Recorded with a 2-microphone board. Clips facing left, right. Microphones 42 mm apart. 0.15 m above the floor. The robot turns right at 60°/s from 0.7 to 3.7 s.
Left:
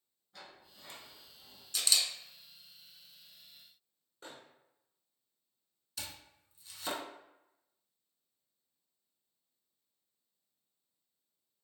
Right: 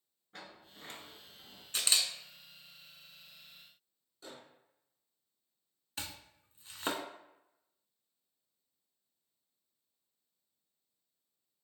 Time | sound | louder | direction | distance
0.3 | a sliding door | right 3 dB | 100° right | 0.8 m
1.7 | a camera shutter | even | 40° right (ahead or behind) | 0.7 m
4.2 | a microwave | even | 40° left (ahead or behind) | 1.4 m
6.0 | chopping | right 2 dB | 40° right (ahead or behind) | 0.6 m